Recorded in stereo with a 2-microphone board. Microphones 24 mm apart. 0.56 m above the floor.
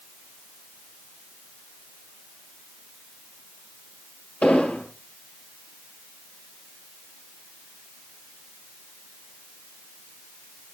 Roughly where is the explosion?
Left.